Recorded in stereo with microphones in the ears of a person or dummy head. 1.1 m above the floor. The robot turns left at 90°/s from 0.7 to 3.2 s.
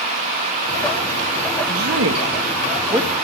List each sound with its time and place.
1.7 s a woman speaking: 45° right (ahead or behind), 1.2 m; by 3.1 s 5° right (ahead or behind), 1.2 m